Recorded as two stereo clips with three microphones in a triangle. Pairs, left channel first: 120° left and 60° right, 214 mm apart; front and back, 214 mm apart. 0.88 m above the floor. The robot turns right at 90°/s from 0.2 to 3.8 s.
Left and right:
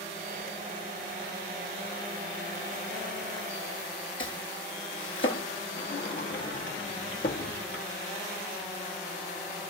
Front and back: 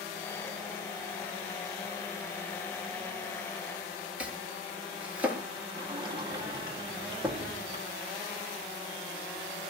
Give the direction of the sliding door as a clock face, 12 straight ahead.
8 o'clock.